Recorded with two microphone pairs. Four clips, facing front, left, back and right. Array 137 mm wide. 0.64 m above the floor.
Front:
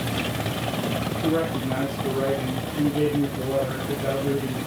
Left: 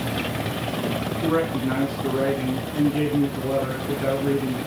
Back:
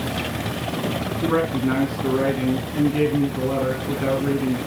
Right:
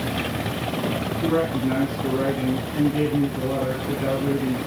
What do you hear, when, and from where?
1.2 s a man speaking: 155° left, 5 m